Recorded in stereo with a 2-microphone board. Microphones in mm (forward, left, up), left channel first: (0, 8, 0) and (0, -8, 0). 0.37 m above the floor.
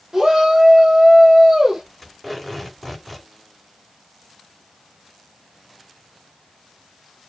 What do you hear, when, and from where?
0.1 s a shout: 25° right (ahead or behind), 1.6 m
2.0 s tape being pulled: 15° left (ahead or behind), 4.5 m